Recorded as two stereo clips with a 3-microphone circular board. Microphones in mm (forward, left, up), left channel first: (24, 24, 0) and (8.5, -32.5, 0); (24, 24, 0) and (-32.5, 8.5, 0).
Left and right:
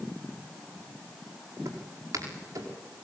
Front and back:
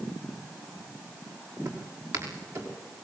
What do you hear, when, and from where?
1.6 s footsteps: 140° right, 5 m